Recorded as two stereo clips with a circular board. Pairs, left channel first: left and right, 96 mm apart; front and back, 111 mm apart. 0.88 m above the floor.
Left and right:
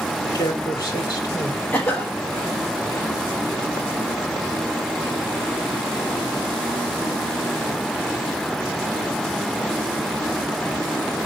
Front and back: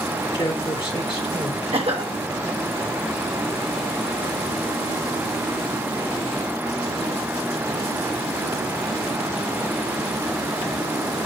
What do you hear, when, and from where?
0.3 s a man speaking: 45° left, 2 m
1.7 s a cough: 160° left, 1.2 m